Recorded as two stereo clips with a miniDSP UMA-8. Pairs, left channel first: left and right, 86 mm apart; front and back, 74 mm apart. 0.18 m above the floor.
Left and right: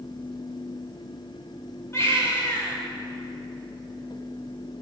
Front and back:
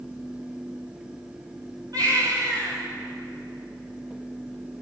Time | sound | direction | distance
1.9 | a baby crying | 150° left | 8 m